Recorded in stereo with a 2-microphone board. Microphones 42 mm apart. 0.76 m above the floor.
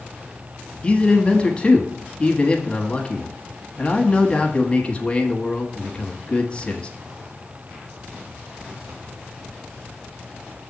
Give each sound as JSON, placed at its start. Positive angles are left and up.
{"t": 0.8, "sound": "a man speaking", "side_deg": 25, "distance_m": 1.2}